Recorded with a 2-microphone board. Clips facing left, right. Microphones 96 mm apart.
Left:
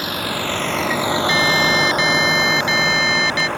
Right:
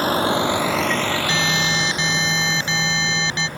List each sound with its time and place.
0.0 s a vehicle: 40° right (ahead or behind); by 3.6 s 70° left (ahead or behind)
1.3 s an alarm: 30° right (ahead or behind)